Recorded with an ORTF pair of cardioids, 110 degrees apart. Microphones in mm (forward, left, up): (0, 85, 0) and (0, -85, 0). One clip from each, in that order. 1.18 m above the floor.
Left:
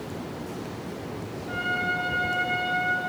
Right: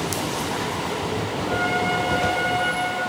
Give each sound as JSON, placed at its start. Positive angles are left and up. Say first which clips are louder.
{"t": 1.5, "sound": "a trumpet", "louder": "right 4 dB", "azimuth_deg": -35, "distance_m": 3.0}